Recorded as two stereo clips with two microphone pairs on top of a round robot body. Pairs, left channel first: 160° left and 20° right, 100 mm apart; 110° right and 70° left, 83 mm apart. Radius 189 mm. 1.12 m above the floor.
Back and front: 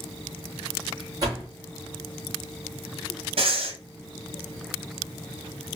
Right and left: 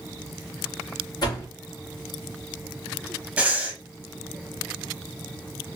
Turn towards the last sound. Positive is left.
turn(degrees=-10)